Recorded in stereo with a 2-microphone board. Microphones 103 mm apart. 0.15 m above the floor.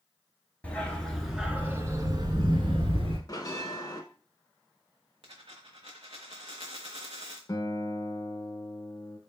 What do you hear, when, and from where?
0.6 s a dog barking: 15° left (ahead or behind), 1.0 m; by 3.2 s 60° right (ahead or behind), 1.0 m
3.3 s a bell: 35° left (ahead or behind), 0.7 m
5.2 s a dropped coin: 60° right (ahead or behind), 1.0 m
7.5 s a guitar: 35° left (ahead or behind), 0.6 m